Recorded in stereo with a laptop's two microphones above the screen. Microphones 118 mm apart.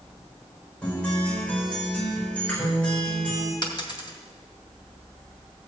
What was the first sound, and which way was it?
A guitar, 10° left (ahead or behind).